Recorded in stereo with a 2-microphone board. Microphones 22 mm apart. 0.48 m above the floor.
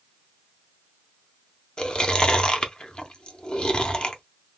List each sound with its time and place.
1.8 s chewing: 45° left (ahead or behind), 0.7 m